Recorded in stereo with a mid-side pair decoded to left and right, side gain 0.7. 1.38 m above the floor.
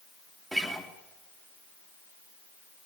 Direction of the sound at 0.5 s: Straight ahead.